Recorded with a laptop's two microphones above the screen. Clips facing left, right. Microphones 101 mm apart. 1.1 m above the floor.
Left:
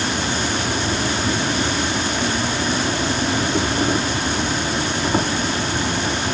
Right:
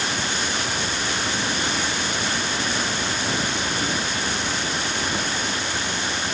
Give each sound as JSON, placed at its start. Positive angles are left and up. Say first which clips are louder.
{"t": 0.0, "sound": "an insect", "louder": "left 4 dB", "side_deg": 50}